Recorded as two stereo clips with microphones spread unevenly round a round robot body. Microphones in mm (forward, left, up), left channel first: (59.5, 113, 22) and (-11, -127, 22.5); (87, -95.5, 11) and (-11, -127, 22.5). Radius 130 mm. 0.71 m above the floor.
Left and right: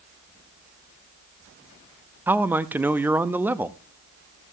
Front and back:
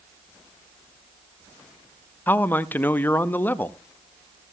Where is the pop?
No pop in this recording.